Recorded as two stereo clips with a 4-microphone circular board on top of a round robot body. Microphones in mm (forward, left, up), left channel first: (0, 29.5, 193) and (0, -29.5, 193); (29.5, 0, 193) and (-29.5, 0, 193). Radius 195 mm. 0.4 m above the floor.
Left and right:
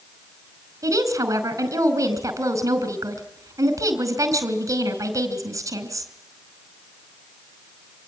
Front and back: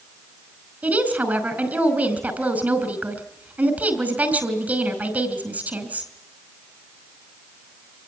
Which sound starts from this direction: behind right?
A woman speaking, at 0.8 s.